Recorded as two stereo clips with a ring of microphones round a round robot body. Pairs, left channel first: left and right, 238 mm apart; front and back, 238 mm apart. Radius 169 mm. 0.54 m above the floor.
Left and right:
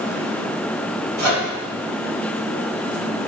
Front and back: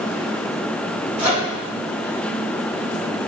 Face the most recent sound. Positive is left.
turn(degrees=-100)